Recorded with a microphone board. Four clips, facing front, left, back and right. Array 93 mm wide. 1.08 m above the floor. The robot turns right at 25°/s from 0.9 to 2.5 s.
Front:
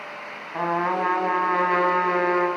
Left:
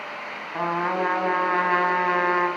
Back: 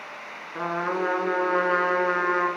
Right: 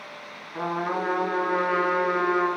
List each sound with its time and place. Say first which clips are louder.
0.5 s a trumpet: left 3 dB, front 4 dB; 35° left, 3 m; by 2.5 s 75° left, 3 m